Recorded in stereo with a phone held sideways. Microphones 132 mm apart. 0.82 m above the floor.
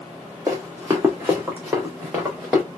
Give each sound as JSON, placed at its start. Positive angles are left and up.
{"t": 0.5, "sound": "running footsteps", "side_deg": -25, "distance_m": 1.5}